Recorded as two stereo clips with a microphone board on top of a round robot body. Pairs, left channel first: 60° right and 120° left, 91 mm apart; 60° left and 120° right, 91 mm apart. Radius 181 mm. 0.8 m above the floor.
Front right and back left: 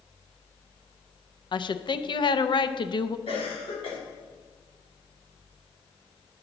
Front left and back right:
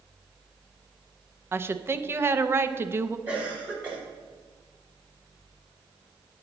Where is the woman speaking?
60° right, 0.7 m.